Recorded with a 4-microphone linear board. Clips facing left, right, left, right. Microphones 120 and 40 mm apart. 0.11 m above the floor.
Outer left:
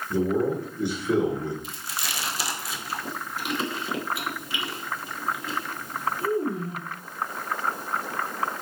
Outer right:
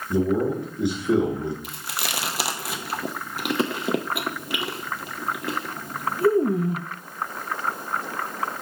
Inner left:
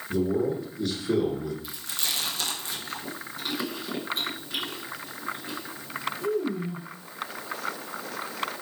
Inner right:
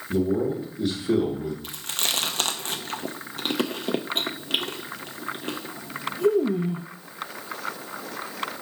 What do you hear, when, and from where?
0.1 s a man speaking: 15° right (ahead or behind), 1.4 m
1.6 s chewing: 65° right (ahead or behind), 0.6 m